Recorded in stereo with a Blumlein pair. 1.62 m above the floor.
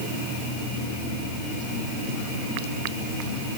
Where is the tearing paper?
No tearing paper in this recording.